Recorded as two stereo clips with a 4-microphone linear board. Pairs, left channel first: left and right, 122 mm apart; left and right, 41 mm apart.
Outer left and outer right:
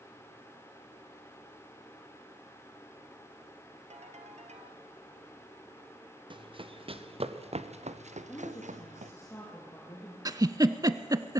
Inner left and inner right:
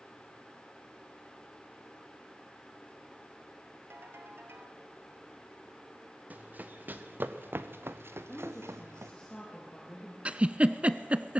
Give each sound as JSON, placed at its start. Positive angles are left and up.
{"t": 3.9, "sound": "a ringtone", "side_deg": -65, "distance_m": 2.5}
{"t": 6.3, "sound": "running footsteps", "side_deg": -45, "distance_m": 2.0}
{"t": 8.3, "sound": "a woman speaking", "side_deg": 20, "distance_m": 4.5}
{"t": 10.2, "sound": "a giggle", "side_deg": -30, "distance_m": 0.6}